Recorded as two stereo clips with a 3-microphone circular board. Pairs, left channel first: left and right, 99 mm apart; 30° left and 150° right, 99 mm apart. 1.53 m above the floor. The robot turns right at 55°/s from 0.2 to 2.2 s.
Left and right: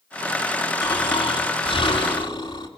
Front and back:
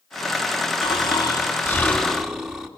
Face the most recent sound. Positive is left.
turn(degrees=120)